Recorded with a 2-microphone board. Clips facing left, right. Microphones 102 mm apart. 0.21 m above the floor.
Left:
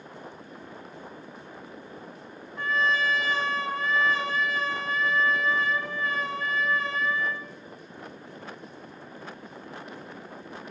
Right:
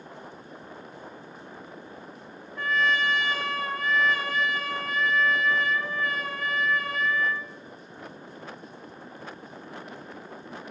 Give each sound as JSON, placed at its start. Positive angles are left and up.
{"t": 2.5, "sound": "a trumpet", "side_deg": 30, "distance_m": 1.3}